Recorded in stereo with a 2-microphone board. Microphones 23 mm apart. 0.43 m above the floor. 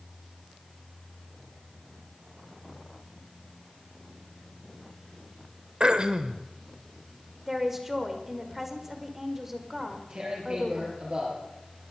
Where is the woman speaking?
10° right (ahead or behind), 1.8 m.